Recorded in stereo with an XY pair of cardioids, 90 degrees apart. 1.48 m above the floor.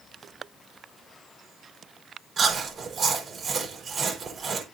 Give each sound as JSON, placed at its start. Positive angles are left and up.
{"t": 2.4, "sound": "chewing", "azimuth_deg": -55, "distance_m": 5.0}